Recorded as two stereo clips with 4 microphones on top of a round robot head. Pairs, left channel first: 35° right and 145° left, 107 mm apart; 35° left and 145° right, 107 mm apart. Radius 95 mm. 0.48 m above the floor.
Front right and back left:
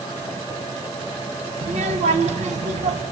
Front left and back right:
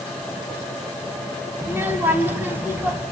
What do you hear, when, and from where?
1.6 s a child speaking: 145° left, 3 m